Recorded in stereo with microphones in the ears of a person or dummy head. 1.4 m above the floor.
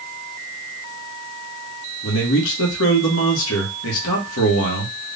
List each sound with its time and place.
2.0 s a man speaking: 70° left (ahead or behind), 1.6 m